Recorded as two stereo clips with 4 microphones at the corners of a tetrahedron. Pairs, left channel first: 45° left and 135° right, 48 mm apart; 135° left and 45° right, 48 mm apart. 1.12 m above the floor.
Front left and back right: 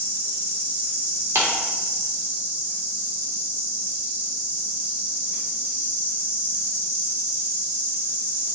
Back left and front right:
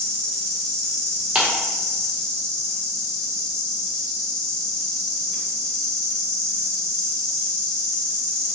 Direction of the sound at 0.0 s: 150° right.